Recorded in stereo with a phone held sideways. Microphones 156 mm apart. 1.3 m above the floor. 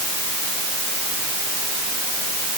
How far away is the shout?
No shout in this recording.